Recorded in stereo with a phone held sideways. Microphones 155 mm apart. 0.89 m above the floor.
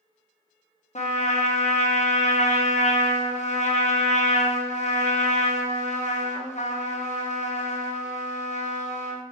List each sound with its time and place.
0.9 s a trumpet: 50° left (ahead or behind), 0.6 m